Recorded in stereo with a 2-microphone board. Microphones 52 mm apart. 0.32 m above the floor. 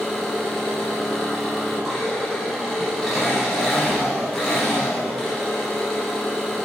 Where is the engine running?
Centre (ahead or behind), 6.5 m.